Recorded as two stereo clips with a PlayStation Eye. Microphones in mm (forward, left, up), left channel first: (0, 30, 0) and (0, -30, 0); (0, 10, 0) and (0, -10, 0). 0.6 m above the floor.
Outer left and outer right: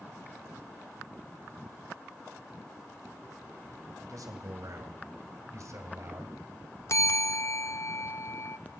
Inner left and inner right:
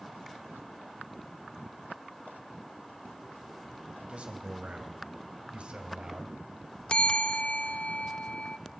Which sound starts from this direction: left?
A bell, at 6.9 s.